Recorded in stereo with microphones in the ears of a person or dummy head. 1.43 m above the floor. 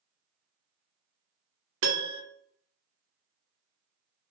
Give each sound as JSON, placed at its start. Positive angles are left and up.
{"t": 1.8, "sound": "a piano", "side_deg": -55, "distance_m": 0.5}